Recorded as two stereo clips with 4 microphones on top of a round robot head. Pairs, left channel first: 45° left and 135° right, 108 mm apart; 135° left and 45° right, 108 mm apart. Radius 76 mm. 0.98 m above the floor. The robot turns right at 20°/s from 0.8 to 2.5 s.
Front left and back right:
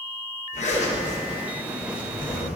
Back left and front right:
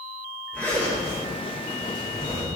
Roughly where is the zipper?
Ahead left.